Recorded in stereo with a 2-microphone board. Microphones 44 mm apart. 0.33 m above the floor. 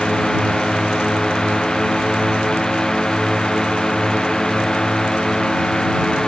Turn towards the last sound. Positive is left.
turn(degrees=15)  # may be behind; listen again after turning